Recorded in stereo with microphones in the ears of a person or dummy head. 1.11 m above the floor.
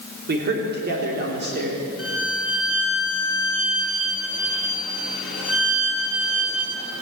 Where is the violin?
Centre (ahead or behind), 5.5 m.